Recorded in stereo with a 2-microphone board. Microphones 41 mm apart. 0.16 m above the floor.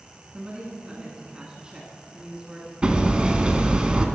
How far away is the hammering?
About 0.6 m.